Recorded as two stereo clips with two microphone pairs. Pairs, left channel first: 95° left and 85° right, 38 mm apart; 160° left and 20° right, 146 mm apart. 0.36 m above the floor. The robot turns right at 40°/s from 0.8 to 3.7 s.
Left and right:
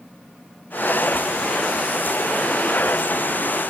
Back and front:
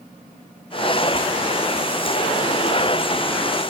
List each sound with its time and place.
Only background noise.